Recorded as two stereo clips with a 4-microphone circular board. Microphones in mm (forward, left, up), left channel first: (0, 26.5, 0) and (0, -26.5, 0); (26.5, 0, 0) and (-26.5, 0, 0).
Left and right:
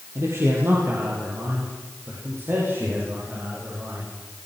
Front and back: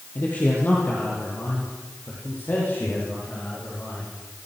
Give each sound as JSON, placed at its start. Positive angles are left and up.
{"t": 0.1, "sound": "a man speaking", "azimuth_deg": -60, "distance_m": 7.0}